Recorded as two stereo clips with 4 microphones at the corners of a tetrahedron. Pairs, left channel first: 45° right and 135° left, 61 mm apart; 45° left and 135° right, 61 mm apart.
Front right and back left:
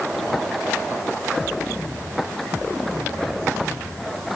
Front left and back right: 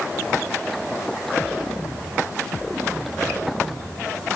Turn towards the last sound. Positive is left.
No sound to turn to.